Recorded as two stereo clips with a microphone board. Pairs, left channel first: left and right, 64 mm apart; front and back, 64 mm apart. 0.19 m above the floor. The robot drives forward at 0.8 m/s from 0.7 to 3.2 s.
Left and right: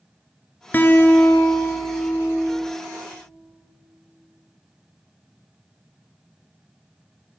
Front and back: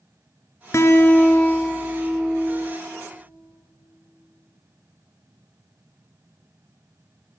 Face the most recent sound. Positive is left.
turn(degrees=160)